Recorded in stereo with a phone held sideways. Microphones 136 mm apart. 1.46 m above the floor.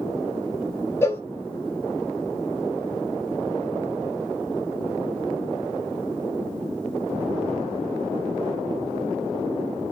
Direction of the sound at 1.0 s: 20° left (ahead or behind).